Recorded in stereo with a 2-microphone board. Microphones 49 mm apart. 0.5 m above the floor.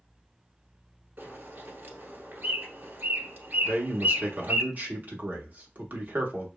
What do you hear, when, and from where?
1.2 s a bird: 40° right (ahead or behind), 1.1 m
3.6 s a man speaking: 35° right (ahead or behind), 0.8 m